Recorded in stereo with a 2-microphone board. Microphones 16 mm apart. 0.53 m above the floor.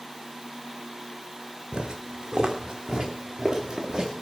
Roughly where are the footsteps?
Right.